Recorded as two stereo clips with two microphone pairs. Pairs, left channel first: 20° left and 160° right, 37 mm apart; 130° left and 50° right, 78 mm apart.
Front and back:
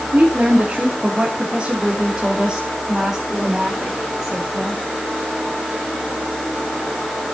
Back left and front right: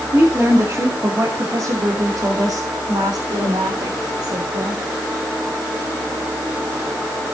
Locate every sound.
0.1 s a woman speaking: 110° right, 2.5 m; by 4.8 s 60° right, 4 m